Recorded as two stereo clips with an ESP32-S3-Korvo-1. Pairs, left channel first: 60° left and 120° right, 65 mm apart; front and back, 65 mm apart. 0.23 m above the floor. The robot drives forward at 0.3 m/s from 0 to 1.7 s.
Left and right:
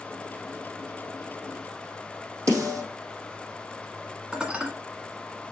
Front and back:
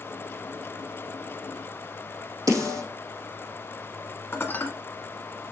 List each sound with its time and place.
2.5 s a snare drum: 170° right, 4.5 m
4.3 s dishes clattering: 45° right, 1.3 m